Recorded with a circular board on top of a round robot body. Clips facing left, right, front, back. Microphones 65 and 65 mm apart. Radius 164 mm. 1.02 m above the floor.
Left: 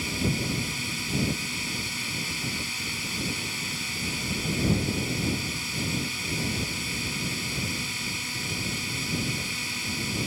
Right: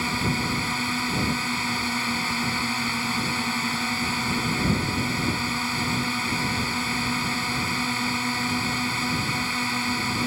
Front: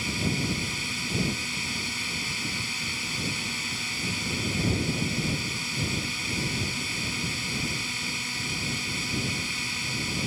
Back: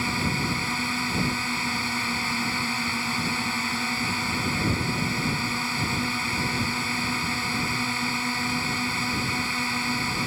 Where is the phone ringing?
No phone ringing in this recording.